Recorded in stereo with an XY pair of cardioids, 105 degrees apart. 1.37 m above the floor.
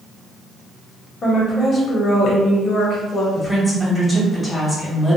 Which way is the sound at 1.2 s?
40° left.